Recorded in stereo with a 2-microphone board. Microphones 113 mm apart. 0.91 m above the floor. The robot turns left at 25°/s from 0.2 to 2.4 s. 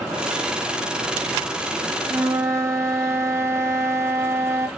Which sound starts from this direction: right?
A flute, at 2.1 s.